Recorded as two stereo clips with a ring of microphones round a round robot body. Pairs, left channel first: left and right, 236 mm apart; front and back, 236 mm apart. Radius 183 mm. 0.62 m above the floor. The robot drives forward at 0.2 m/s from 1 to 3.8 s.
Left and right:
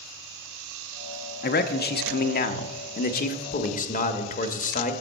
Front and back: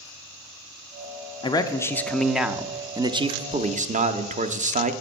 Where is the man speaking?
65° left, 0.6 m; by 4.9 s 130° left, 0.7 m.